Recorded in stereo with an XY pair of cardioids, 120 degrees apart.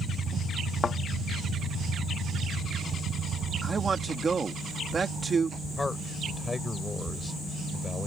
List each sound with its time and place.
0.8 s a thud: 30° left
3.6 s a man speaking: 25° right
5.8 s a man speaking: 20° left